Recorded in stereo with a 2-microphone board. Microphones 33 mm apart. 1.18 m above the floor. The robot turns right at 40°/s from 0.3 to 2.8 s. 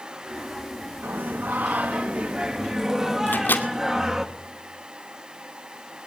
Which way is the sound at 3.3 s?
70° left (ahead or behind).